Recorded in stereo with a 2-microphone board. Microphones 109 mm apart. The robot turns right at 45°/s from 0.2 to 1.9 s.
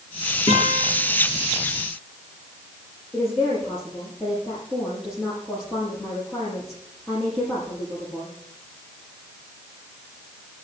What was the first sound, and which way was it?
A guitar, 70° left (ahead or behind).